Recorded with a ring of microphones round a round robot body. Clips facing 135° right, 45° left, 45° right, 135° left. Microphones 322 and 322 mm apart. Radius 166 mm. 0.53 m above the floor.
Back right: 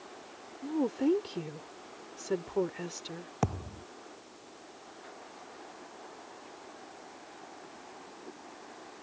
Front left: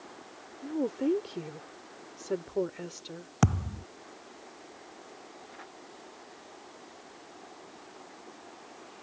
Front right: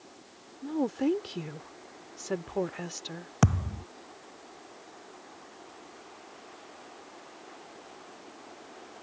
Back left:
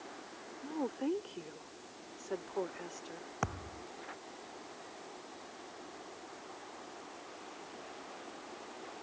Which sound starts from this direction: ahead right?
A woman speaking, at 0.6 s.